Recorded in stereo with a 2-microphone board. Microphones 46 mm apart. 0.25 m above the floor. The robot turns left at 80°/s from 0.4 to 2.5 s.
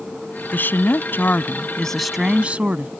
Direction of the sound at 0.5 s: 120° left.